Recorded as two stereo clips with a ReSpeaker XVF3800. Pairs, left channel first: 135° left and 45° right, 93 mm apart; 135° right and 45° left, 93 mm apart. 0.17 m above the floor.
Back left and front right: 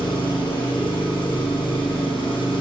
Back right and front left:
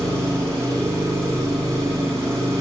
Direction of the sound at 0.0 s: 105° left.